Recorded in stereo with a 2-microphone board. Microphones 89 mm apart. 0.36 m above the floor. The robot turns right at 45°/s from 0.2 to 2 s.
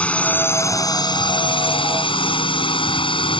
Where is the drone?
15° left (ahead or behind); by 3.4 s 65° left (ahead or behind).